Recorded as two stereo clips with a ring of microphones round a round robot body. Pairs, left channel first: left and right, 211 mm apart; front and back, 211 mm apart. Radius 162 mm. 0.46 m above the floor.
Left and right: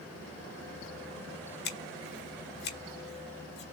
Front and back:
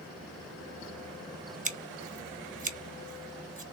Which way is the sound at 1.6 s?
130° left.